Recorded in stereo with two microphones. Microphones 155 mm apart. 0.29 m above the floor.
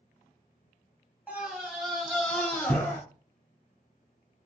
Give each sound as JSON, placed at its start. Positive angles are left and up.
{"t": 1.3, "sound": "a scream", "side_deg": -10, "distance_m": 1.8}